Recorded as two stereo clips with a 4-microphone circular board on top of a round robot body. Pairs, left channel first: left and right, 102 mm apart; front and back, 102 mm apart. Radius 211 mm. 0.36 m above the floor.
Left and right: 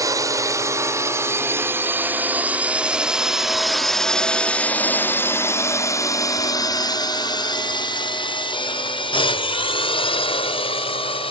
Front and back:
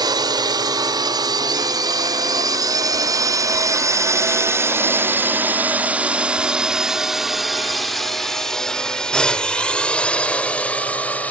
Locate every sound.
0.0 s a drone: 140° right; by 11.3 s 75° left